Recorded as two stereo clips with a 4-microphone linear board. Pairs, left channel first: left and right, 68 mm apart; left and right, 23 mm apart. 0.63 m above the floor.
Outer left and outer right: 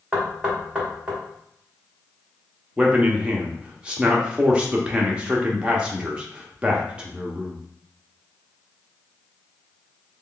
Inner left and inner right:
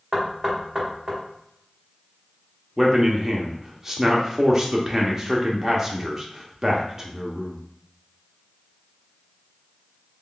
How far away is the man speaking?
About 0.6 m.